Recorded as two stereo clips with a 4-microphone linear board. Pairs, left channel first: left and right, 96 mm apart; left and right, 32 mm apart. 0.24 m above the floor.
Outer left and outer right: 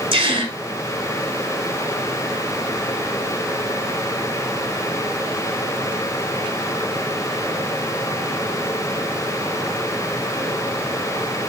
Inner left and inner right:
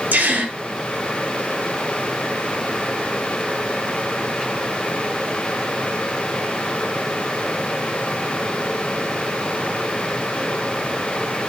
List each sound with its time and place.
0.1 s a gasp: 75° right (ahead or behind), 0.9 m